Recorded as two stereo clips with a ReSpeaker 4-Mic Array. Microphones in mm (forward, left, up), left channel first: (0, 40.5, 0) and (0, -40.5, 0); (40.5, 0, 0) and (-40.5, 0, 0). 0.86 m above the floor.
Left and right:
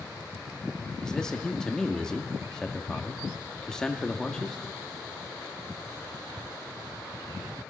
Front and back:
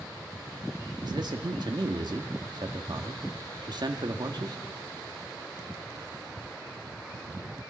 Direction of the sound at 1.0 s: 170° left.